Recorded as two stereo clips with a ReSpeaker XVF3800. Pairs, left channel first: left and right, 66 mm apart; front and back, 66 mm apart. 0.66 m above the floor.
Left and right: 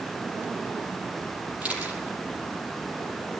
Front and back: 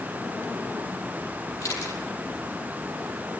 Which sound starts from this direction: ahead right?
A camera shutter, at 1.6 s.